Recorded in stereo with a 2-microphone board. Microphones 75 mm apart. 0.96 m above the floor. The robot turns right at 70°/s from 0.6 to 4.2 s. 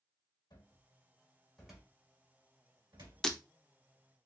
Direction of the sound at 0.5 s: 70° left (ahead or behind).